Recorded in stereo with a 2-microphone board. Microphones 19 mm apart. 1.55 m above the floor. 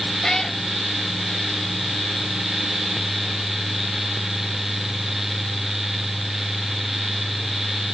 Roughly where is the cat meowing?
Left.